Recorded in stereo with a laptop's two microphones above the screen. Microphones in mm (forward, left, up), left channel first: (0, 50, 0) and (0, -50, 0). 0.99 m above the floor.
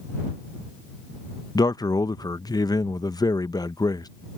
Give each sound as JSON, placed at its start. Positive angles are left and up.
{"t": 1.6, "sound": "a man speaking", "side_deg": 40}